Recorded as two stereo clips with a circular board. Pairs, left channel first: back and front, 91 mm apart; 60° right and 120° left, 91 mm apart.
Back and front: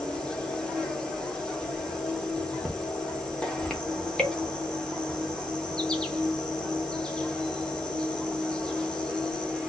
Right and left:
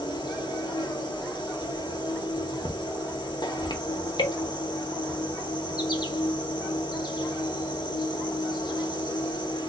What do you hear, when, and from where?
0.0 s an insect: 100° right, 0.8 m